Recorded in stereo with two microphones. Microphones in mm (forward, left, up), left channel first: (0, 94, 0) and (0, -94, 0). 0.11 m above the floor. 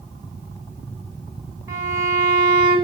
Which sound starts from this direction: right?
A violin, at 1.7 s.